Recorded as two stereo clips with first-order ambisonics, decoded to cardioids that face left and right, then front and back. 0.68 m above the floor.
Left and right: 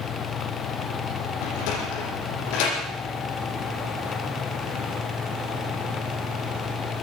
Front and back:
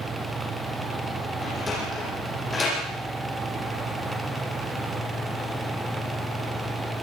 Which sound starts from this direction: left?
A sliding door, at 1.4 s.